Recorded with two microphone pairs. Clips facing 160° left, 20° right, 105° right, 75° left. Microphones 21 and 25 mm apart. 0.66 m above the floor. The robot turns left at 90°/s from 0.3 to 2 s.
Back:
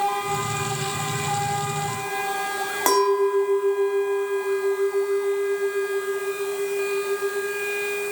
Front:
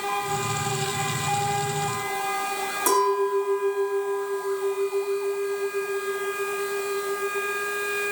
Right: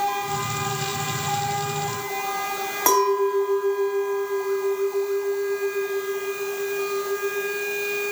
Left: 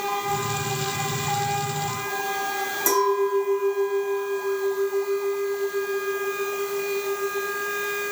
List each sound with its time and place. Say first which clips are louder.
2.9 s a clink: back 3 dB, right 2 dB; 150° right, 3.5 m